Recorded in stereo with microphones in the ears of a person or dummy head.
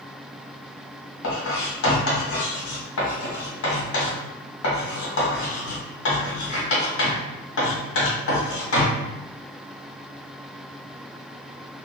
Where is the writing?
75° left (ahead or behind), 1.5 m.